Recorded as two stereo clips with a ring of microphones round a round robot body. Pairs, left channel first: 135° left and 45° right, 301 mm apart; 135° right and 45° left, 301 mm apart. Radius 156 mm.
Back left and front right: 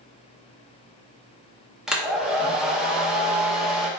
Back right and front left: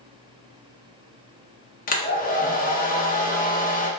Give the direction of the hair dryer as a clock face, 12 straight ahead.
4 o'clock.